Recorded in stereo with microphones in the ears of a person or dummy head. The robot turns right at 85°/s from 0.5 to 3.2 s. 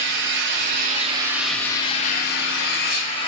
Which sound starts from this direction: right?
An engine running, at 0.0 s.